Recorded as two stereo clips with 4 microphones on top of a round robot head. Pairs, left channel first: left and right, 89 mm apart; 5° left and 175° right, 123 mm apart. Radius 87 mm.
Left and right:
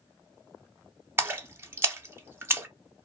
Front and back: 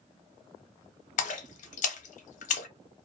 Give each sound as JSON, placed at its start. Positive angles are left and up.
{"t": 1.2, "sound": "a splash", "azimuth_deg": -25, "distance_m": 0.6}